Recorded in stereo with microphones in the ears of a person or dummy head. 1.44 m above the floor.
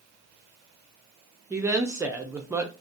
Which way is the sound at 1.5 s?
5° right (ahead or behind).